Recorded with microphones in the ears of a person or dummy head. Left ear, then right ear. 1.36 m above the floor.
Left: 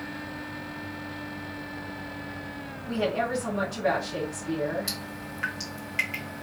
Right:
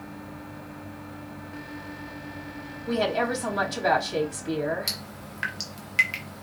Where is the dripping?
20° right (ahead or behind), 1.1 m.